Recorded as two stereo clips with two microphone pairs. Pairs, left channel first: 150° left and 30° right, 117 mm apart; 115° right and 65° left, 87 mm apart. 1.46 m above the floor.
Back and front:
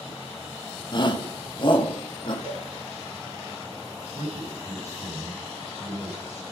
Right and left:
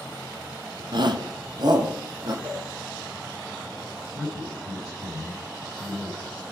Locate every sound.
0.9 s a shout: 100° left, 0.8 m; by 2.3 s 105° left, 1.6 m
2.4 s a cowbell: straight ahead, 3 m
4.1 s a man speaking: 20° right, 6.5 m